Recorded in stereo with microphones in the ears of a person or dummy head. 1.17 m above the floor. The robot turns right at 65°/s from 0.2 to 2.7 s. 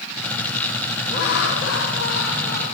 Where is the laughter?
45° left, 1.8 m; by 2.7 s 145° left, 1.8 m.